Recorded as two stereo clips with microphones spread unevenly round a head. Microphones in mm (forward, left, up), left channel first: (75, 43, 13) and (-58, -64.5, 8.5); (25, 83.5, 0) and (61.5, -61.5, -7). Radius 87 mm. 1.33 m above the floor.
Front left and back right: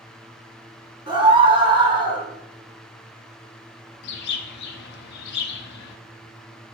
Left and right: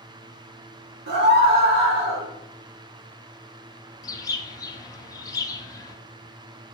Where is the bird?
40° left, 0.5 m.